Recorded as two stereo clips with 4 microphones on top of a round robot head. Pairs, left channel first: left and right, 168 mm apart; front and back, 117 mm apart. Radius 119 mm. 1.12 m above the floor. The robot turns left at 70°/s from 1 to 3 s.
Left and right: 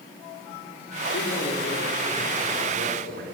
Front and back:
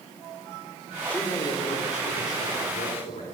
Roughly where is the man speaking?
Left.